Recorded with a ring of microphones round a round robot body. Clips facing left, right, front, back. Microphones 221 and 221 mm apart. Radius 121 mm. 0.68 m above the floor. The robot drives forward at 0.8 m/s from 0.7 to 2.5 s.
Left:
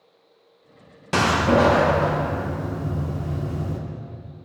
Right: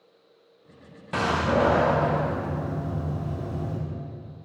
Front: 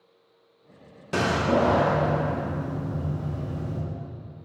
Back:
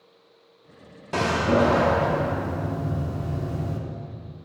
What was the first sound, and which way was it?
A door slam, 75° left.